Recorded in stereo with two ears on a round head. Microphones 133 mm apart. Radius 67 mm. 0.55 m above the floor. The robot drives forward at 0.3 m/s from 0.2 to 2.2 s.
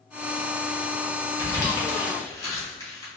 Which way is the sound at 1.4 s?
25° left (ahead or behind).